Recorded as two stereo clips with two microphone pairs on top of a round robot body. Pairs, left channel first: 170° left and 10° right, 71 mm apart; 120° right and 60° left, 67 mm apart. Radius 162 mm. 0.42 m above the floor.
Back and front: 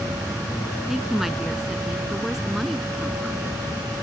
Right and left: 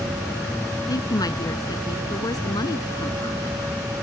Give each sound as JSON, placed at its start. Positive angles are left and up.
{"t": 0.9, "sound": "a woman speaking", "azimuth_deg": -95}